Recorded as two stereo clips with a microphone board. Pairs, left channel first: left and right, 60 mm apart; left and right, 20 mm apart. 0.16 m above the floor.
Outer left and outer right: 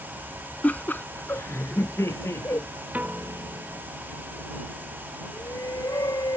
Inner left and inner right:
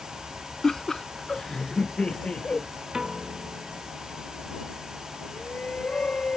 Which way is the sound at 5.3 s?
80° left.